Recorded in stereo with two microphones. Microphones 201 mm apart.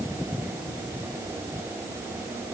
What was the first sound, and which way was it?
Only background noise.